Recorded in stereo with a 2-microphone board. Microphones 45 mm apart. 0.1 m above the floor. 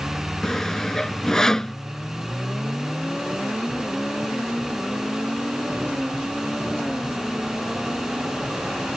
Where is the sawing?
15° left (ahead or behind).